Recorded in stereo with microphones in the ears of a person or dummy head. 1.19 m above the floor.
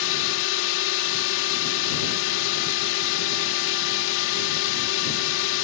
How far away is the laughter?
I don't hear laughter.